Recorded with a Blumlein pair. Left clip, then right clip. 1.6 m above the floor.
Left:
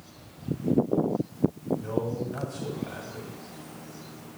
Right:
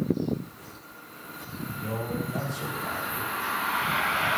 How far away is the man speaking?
About 2 m.